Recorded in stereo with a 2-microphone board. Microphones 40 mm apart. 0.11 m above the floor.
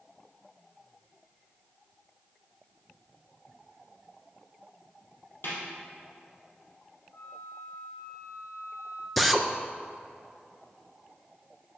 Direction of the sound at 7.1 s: 50° left (ahead or behind).